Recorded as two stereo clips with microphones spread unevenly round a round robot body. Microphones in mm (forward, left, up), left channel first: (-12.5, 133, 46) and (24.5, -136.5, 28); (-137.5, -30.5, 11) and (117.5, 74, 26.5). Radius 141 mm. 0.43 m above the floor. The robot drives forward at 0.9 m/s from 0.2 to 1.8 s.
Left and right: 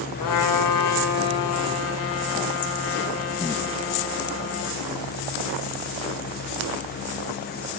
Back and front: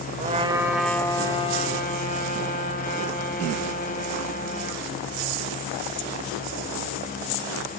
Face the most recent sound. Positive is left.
turn(degrees=140)